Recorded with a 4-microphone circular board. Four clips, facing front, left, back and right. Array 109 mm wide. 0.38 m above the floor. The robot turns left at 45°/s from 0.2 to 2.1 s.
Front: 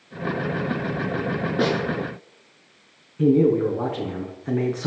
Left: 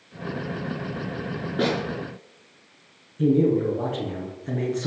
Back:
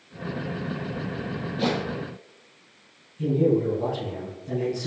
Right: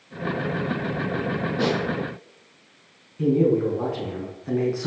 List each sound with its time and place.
1.6 s a snare drum: 25° left, 7 m; by 1.8 s 15° left, 7 m
3.2 s a man speaking: 10° right, 5 m